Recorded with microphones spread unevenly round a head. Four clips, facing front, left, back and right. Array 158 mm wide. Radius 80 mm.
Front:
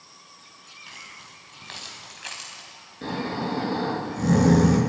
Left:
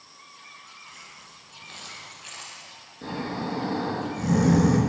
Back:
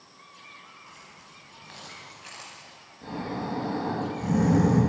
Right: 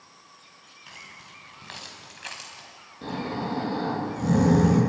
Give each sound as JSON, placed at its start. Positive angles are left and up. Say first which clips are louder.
{"t": 0.9, "sound": "keys jangling", "louder": "even, front 3 dB", "azimuth_deg": -35, "distance_m": 6.0}
{"t": 3.0, "sound": "snoring", "louder": "even, front 4 dB", "azimuth_deg": 5, "distance_m": 8.5}